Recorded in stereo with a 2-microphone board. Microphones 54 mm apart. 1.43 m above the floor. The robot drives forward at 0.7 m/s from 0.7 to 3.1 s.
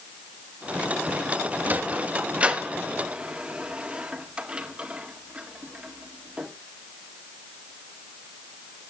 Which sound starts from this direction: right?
A sliding door, at 1.6 s.